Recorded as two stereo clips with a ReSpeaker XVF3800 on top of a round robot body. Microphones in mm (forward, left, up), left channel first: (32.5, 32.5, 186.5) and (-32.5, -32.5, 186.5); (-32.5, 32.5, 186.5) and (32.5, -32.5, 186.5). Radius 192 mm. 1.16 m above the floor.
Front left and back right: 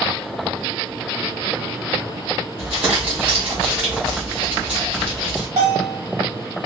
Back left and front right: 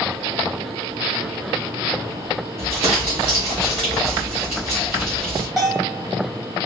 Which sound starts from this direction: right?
Crumpling, at 2.6 s.